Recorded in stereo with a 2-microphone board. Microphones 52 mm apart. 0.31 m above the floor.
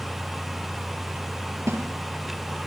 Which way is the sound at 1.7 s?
65° right (ahead or behind).